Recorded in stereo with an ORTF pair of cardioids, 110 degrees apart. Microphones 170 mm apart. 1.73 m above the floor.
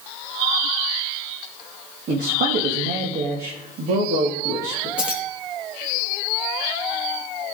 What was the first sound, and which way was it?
A man speaking, 60° right.